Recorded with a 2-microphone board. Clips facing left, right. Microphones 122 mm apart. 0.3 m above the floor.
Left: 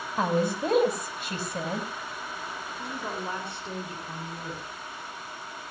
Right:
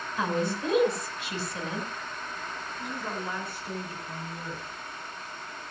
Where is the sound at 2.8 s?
30° left (ahead or behind), 4.5 m.